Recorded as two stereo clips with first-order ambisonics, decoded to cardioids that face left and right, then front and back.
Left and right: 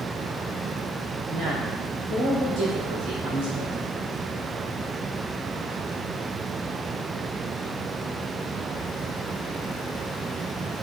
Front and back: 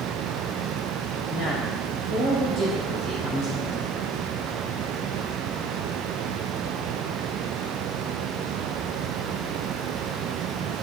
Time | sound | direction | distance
1.3 | a woman speaking | 30° right | 3 m